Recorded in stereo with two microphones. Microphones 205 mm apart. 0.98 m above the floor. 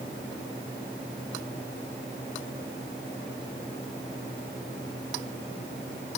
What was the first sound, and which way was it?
Only background noise.